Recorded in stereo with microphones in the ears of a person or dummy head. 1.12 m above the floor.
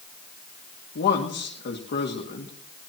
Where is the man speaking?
55° left (ahead or behind), 2.5 m.